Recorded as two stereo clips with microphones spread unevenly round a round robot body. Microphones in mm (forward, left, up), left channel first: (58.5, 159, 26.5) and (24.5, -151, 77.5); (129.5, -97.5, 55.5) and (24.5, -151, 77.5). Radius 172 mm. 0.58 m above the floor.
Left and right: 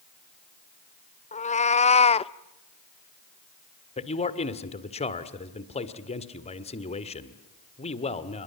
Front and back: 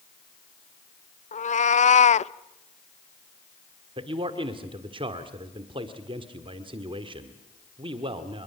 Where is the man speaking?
150° left, 1.6 m.